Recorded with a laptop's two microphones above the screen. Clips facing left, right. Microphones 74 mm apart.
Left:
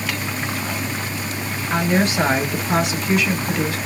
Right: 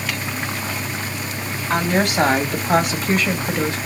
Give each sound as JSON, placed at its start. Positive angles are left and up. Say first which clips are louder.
{"t": 1.7, "sound": "a woman speaking", "louder": "even", "side_deg": -75, "distance_m": 1.5}